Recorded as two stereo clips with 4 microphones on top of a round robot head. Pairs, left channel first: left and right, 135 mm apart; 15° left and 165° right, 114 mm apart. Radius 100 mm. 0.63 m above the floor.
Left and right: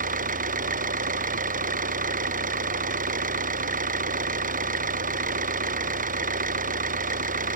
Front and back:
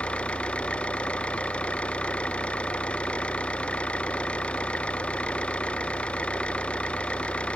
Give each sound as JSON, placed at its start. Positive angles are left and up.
{"t": 0.0, "sound": "an engine running", "azimuth_deg": -70}